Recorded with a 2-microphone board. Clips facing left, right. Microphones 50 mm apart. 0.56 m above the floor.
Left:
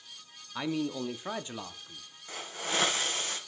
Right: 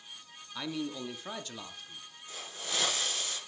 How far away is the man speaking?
About 0.6 m.